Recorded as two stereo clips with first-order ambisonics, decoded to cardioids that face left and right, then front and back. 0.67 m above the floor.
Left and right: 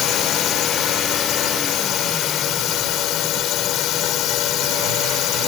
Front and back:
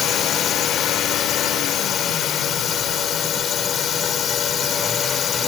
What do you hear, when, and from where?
0.0 s a drone: 50° left